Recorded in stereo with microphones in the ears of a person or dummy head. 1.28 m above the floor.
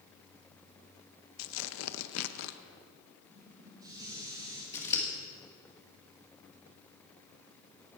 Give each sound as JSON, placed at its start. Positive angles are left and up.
{"t": 1.4, "sound": "tearing paper", "side_deg": 75, "distance_m": 0.5}
{"t": 3.3, "sound": "dishes clattering", "side_deg": -25, "distance_m": 3.5}
{"t": 4.7, "sound": "scissors", "side_deg": 15, "distance_m": 1.6}